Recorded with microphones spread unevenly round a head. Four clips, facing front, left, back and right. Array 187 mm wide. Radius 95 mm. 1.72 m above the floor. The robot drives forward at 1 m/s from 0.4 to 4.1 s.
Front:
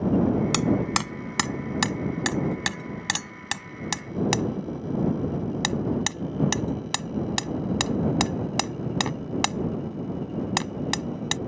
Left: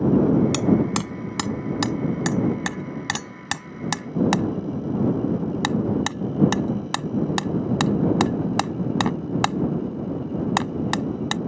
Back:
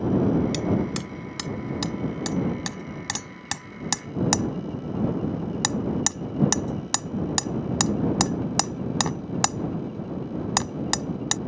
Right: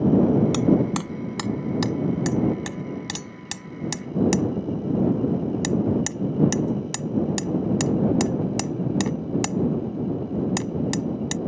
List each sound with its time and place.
0.5 s hammering: 50° left; by 11.4 s 110° left